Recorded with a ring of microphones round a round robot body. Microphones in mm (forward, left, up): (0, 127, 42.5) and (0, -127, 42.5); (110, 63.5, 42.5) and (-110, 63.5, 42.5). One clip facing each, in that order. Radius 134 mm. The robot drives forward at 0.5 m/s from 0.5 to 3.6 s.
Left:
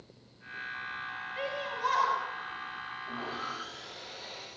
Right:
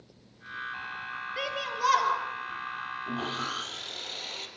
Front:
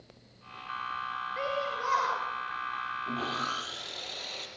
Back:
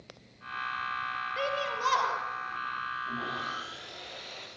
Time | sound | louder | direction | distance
1.4 | a shout | right 1 dB, even | 120° right | 7.5 m
3.1 | sawing | right 6 dB, front 4 dB | 45° right | 4.5 m